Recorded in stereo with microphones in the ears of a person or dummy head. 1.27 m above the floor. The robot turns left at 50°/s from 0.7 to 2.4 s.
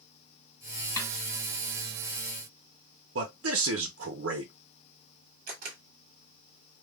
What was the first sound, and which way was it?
A snare drum, 20° left (ahead or behind).